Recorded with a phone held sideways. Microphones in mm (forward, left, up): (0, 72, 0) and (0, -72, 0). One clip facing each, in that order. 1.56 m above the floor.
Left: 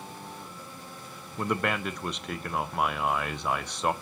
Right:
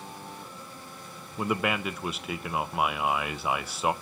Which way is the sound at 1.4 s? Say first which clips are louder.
Right 1 dB; 5° right (ahead or behind).